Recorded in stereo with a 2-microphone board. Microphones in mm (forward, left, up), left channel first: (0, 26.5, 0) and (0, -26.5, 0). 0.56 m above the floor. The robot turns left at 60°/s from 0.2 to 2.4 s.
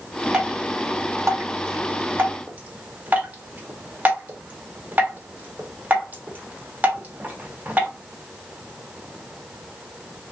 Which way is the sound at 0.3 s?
15° right (ahead or behind).